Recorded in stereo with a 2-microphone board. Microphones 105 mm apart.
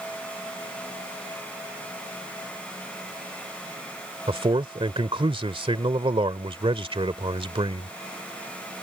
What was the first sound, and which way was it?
A man speaking, 60° right (ahead or behind).